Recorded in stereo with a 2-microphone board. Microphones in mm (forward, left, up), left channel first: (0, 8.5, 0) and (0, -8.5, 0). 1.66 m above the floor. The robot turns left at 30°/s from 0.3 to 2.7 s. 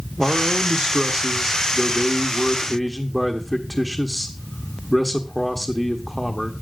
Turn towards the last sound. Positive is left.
turn(degrees=160)